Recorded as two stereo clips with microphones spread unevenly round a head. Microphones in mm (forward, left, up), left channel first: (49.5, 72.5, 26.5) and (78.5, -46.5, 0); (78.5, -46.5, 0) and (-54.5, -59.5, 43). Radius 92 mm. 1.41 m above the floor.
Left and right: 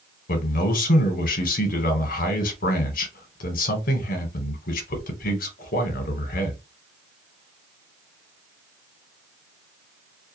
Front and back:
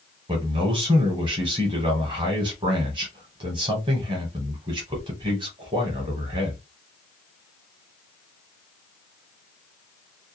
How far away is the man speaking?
About 0.9 m.